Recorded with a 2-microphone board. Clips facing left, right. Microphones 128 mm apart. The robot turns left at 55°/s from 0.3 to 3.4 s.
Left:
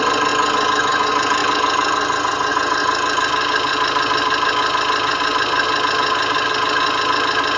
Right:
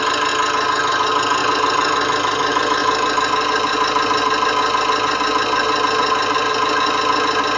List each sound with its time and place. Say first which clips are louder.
0.0 s an engine running: left 2 dB; 30° left, 1.3 m; by 7.6 s 140° right, 1.3 m